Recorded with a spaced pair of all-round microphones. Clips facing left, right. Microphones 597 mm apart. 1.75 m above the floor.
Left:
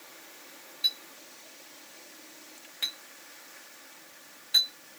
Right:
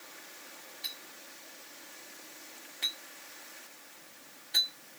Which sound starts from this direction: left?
A clink, at 0.8 s.